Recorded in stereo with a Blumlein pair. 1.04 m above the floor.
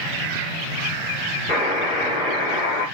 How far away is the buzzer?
About 1.4 m.